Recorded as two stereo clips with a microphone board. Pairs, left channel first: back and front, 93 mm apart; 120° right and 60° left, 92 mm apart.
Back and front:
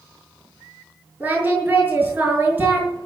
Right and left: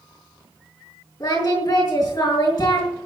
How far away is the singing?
About 6.5 m.